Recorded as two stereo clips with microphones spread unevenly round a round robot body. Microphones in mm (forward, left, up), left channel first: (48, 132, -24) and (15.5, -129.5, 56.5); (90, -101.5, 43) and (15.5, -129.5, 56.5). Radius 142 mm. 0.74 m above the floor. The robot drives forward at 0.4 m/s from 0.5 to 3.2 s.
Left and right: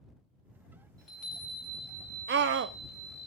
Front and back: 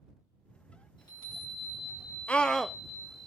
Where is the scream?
40° right, 0.8 m; by 2.8 s 55° right, 0.7 m.